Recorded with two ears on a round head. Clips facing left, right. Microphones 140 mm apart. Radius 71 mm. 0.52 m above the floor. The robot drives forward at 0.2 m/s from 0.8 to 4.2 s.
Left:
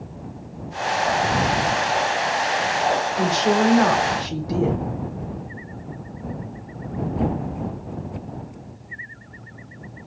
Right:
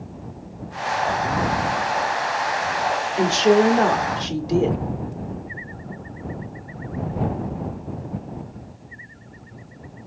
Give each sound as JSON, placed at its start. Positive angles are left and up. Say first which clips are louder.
{"t": 3.2, "sound": "a woman speaking", "louder": "right 6 dB", "side_deg": -35, "distance_m": 1.2}